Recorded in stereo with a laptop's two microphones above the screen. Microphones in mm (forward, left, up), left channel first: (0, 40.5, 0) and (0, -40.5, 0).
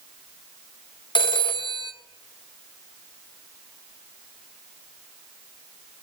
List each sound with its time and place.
1.1 s a phone ringing: 80° left, 0.7 m